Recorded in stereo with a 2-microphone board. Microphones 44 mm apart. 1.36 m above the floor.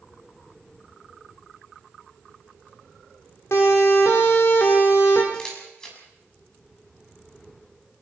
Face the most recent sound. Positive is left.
turn(degrees=15)  # may be behind; listen again after turning